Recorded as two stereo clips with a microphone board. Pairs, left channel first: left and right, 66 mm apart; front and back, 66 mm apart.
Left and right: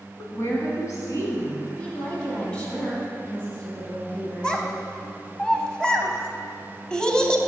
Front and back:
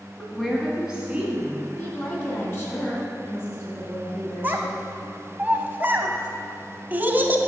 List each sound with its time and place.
0.2 s a woman speaking: 65° left, 1.5 m; by 1.7 s 120° left, 2.5 m
1.8 s a woman speaking: 30° left, 2.0 m
4.4 s a child speaking: 155° left, 0.7 m